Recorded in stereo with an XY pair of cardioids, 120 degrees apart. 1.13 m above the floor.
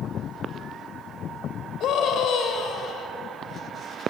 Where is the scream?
65° left, 5.5 m.